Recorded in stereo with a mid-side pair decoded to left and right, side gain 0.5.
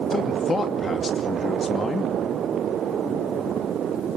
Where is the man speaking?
30° left, 2.5 m.